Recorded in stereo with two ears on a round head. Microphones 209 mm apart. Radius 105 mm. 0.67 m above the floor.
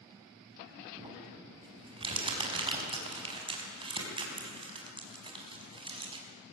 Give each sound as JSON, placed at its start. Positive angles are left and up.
{"t": 1.0, "sound": "crumpling", "side_deg": -20, "distance_m": 5.5}